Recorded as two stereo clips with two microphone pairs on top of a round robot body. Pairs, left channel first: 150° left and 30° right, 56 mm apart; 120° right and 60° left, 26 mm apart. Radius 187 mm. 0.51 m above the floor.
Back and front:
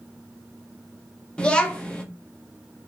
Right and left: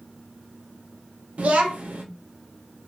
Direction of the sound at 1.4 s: 80° left.